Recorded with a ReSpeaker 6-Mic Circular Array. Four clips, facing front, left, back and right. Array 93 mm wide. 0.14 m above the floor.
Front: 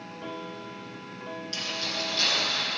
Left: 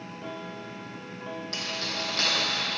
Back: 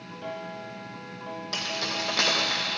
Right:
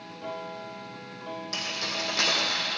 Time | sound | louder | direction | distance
1.5 | keys jangling | even, back 3 dB | 175° right | 4 m